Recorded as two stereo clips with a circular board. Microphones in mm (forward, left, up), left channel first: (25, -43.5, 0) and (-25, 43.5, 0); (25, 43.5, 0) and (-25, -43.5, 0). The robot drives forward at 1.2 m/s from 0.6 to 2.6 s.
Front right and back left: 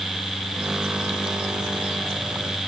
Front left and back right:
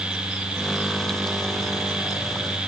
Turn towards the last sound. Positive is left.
No sound to turn to.